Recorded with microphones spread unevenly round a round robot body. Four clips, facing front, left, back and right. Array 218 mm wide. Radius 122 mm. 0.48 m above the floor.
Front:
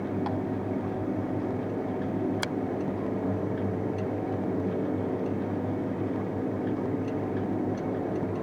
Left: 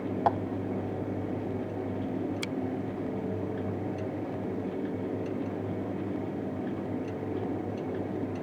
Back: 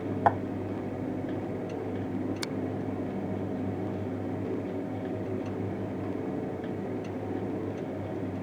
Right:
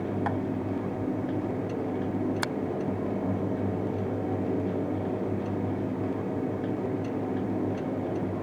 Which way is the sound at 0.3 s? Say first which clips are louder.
Left 8 dB, back 7 dB; 145° left.